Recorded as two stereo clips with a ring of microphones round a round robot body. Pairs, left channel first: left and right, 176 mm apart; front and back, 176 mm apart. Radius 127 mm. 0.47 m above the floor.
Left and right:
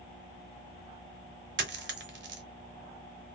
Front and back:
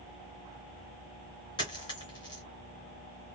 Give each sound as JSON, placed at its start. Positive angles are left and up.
{"t": 1.6, "sound": "a dropped coin", "azimuth_deg": -75, "distance_m": 0.8}